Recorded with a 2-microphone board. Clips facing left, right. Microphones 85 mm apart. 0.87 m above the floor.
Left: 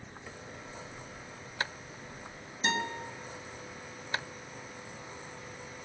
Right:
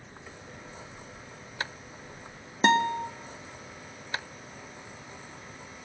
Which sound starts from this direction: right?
A guitar, at 2.6 s.